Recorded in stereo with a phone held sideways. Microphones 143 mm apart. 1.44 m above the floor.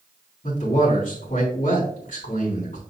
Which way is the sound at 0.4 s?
70° left (ahead or behind).